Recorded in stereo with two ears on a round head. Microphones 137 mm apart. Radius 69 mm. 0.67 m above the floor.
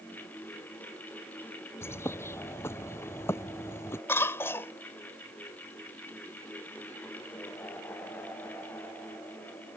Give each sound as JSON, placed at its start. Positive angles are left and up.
{"t": 1.8, "sound": "a bird", "side_deg": 15}
{"t": 4.1, "sound": "a cough", "side_deg": 15}